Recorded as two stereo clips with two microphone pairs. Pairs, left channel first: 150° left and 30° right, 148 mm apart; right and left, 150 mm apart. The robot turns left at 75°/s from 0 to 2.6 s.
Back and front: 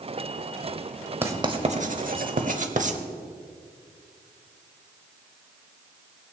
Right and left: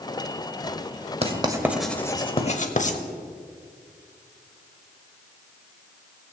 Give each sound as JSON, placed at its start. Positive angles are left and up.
{"t": 1.2, "sound": "writing", "azimuth_deg": 45, "distance_m": 0.8}